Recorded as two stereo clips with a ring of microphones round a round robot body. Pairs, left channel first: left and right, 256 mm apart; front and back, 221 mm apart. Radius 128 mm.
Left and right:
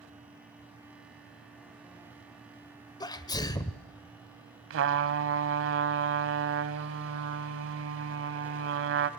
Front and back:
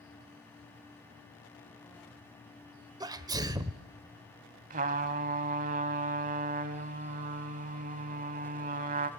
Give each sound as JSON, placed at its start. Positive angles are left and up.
{"t": 3.0, "sound": "a sneeze", "azimuth_deg": 140, "distance_m": 0.9}
{"t": 4.7, "sound": "a trumpet", "azimuth_deg": -125, "distance_m": 1.0}